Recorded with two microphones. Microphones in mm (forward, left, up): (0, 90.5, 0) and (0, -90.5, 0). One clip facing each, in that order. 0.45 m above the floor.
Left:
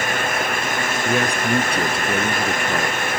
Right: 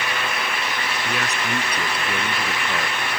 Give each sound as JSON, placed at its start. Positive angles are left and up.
{"t": 1.1, "sound": "a man speaking", "side_deg": 35}